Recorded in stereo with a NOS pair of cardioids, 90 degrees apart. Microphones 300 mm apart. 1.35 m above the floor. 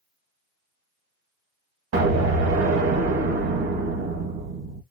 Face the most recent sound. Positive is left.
turn(degrees=-60)